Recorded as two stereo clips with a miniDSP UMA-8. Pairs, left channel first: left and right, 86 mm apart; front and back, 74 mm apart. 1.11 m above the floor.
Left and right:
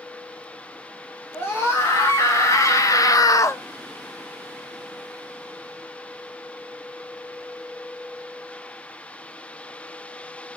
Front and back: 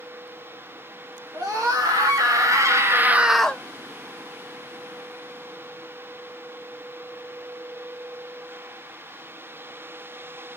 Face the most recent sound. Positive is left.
turn(degrees=55)